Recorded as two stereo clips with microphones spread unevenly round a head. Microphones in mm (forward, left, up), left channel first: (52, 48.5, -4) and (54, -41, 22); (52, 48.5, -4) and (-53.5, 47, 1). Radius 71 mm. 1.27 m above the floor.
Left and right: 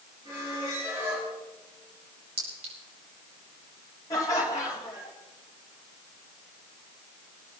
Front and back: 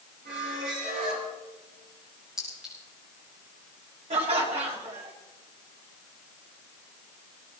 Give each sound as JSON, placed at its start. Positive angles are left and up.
{"t": 0.2, "sound": "a squeak", "azimuth_deg": -165, "distance_m": 4.0}
{"t": 2.4, "sound": "a clink", "azimuth_deg": -90, "distance_m": 4.5}
{"t": 4.1, "sound": "laughter", "azimuth_deg": 160, "distance_m": 3.0}